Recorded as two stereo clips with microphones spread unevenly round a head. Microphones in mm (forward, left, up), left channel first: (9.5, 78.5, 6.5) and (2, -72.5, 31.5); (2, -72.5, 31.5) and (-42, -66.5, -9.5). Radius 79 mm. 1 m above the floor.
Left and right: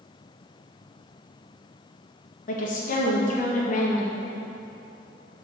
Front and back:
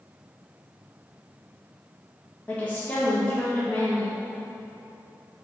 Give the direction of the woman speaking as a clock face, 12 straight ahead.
9 o'clock.